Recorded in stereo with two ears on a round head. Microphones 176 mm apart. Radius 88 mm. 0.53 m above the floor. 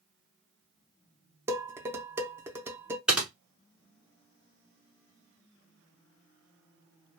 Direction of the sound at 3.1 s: 5° right (ahead or behind).